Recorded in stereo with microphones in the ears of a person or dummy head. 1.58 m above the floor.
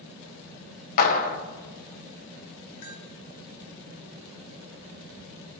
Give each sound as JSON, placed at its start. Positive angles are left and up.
{"t": 1.0, "sound": "a clap", "side_deg": 55, "distance_m": 1.7}
{"t": 2.8, "sound": "a bell", "side_deg": 45, "distance_m": 2.5}